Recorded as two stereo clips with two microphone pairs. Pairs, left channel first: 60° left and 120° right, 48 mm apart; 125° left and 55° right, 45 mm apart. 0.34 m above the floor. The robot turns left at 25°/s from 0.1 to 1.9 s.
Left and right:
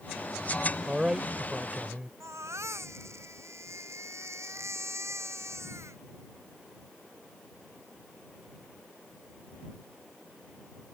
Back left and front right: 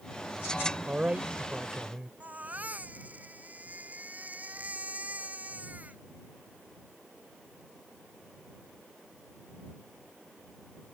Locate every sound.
0.9 s a man speaking: 50° right; by 2.1 s 75° right
2.2 s a baby crying: 105° right